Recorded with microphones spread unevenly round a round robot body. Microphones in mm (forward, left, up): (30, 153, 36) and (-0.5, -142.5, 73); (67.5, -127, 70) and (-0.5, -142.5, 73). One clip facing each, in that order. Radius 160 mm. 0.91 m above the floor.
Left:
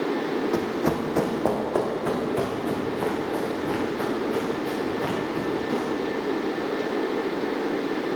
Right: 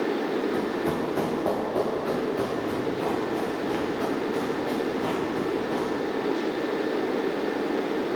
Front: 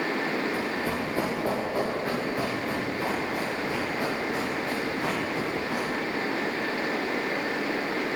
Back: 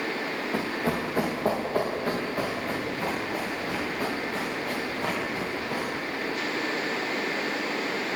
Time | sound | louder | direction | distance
0.5 | running footsteps | left 2 dB, back 1 dB | 115° left | 2 m